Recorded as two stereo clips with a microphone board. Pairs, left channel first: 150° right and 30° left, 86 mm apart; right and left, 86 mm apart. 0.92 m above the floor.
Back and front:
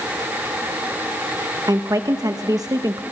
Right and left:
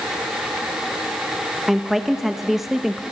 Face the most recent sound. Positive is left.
turn(degrees=5)